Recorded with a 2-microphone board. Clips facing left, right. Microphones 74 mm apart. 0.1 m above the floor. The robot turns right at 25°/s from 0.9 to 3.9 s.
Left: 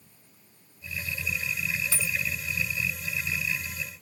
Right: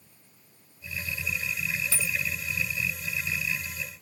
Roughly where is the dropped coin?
Centre.